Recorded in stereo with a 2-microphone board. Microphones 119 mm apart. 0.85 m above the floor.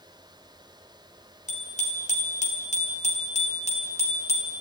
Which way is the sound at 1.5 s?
80° left.